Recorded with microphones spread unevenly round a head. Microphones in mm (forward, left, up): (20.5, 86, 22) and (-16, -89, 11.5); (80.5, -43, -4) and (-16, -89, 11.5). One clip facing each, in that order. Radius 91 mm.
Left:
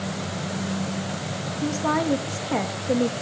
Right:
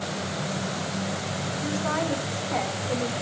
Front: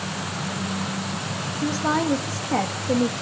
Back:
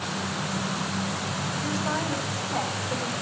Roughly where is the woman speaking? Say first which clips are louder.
Left 5 dB, front 8 dB; ahead left.